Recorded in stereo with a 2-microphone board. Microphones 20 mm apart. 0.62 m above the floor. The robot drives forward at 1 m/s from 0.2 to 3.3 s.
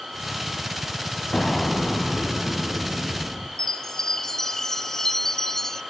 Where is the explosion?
30° left (ahead or behind), 1.2 m; by 3.5 s 10° left (ahead or behind), 3 m.